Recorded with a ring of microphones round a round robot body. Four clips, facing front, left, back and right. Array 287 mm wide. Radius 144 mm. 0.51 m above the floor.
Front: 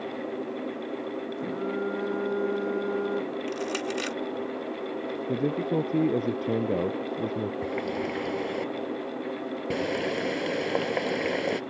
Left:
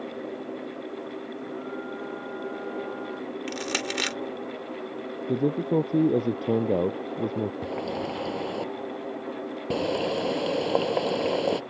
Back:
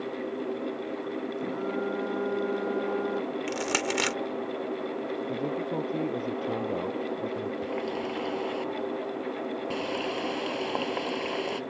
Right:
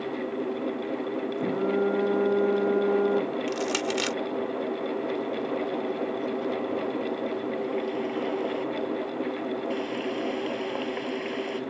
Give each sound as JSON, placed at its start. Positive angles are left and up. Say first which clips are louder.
{"t": 1.4, "sound": "a phone buzzing", "louder": "right 13 dB, front 2 dB", "azimuth_deg": -80}
{"t": 3.5, "sound": "crushing", "louder": "right 4 dB, back 1 dB", "azimuth_deg": 165}
{"t": 5.3, "sound": "a man speaking", "louder": "left 4 dB, front 8 dB", "azimuth_deg": 65}
{"t": 7.6, "sound": "a running tap", "louder": "right 2 dB, front 1 dB", "azimuth_deg": 65}